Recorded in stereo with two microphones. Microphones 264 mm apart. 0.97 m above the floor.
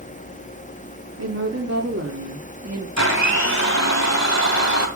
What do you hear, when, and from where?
1.2 s a woman speaking: 75° right (ahead or behind), 3 m; by 2.9 s 65° right (ahead or behind), 2 m
3.0 s a blender: 80° left, 2 m